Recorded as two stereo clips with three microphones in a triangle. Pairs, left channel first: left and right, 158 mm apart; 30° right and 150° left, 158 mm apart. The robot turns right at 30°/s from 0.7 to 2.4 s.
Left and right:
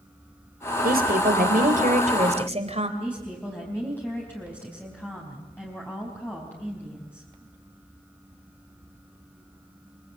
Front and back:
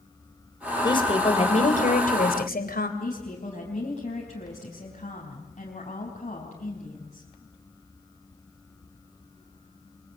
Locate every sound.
0.8 s a woman speaking: 90° right, 3 m; by 2.9 s 45° right, 3 m
3.0 s a woman speaking: 10° left, 4.5 m